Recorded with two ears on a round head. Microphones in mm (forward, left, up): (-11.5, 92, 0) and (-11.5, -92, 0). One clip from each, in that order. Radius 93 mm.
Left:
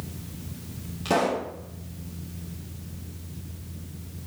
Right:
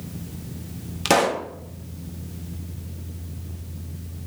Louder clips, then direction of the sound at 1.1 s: Right 5 dB; 70° right (ahead or behind).